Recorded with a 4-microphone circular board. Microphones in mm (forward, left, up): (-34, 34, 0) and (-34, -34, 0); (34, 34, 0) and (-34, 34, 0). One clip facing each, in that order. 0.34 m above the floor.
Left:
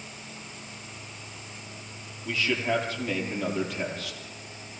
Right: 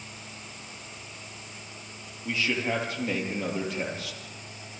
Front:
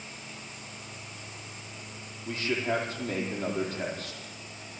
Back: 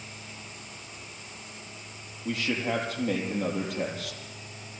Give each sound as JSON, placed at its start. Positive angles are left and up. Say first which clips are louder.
{"t": 2.2, "sound": "a man speaking", "louder": "left 1 dB, back 1 dB", "azimuth_deg": -160, "distance_m": 7.5}